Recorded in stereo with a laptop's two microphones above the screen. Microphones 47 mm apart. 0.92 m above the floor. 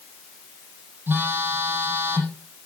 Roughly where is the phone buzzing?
Right.